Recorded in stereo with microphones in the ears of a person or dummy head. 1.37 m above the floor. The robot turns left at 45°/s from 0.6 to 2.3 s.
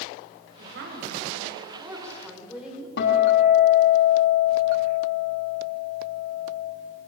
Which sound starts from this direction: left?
A guitar, at 3.0 s.